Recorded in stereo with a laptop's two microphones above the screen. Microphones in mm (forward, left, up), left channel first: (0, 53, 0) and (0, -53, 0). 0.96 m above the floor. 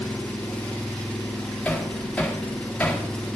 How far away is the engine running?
About 1.1 m.